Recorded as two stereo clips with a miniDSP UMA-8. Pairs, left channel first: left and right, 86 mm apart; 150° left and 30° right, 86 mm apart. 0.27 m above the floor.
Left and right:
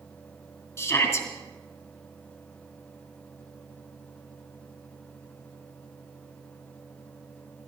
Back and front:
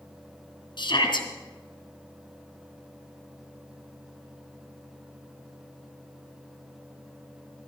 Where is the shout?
145° left, 2.5 m.